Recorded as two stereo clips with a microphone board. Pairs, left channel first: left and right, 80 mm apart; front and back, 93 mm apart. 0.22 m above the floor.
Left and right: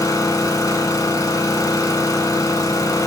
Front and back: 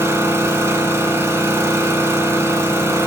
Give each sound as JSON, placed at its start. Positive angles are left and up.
{"t": 0.0, "sound": "an engine running", "azimuth_deg": 125, "distance_m": 0.9}